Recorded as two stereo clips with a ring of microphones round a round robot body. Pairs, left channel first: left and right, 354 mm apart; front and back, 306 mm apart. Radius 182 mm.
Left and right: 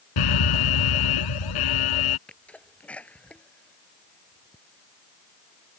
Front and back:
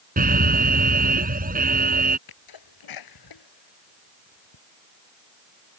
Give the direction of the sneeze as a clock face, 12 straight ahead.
12 o'clock.